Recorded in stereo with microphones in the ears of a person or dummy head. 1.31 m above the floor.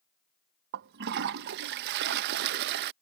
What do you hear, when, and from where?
0.7 s a toilet flushing: 55° right (ahead or behind)